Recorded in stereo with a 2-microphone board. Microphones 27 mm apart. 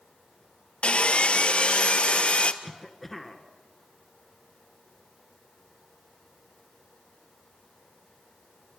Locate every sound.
0.8 s sawing: 50° left (ahead or behind), 0.8 m
2.6 s a cough: 5° left (ahead or behind), 2.0 m